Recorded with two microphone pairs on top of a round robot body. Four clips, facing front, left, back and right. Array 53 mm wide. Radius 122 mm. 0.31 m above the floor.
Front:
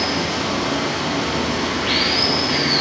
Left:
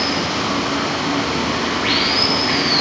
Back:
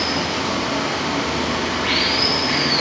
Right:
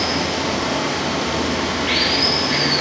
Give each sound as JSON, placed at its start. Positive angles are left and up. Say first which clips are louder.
{"t": 0.0, "sound": "running water", "louder": "left 1 dB, even", "azimuth_deg": 110, "distance_m": 2.0}